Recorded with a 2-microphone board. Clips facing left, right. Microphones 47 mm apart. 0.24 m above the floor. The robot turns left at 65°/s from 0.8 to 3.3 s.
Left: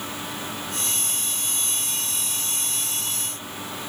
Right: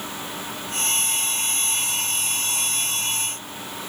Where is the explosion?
No explosion in this recording.